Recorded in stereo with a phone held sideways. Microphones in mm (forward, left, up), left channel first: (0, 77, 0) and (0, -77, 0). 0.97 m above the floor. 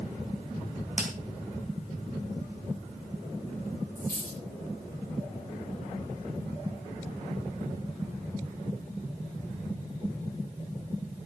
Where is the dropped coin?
65° left (ahead or behind), 8.5 m.